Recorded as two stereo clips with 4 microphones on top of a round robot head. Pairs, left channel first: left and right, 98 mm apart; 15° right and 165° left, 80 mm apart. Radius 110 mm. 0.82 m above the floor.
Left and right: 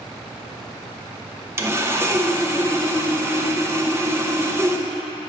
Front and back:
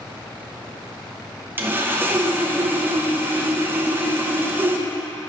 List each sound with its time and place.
1.6 s sawing: 140° right, 1.0 m